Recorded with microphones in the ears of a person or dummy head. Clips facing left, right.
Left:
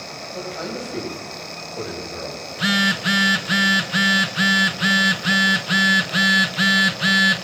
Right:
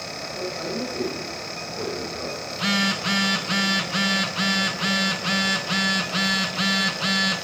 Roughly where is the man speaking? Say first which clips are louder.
Even; left.